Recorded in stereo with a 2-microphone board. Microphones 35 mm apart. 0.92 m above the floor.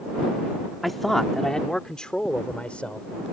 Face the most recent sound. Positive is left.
turn(degrees=40)  # may be behind; listen again after turning